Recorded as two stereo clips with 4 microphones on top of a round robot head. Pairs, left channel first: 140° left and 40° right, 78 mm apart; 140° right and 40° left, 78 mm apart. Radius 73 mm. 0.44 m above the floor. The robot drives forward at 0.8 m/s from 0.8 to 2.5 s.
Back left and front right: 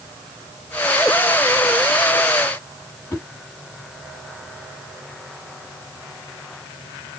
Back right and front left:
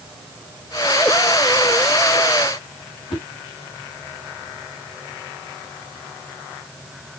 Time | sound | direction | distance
3.1 | a whoosh | 160° right | 3 m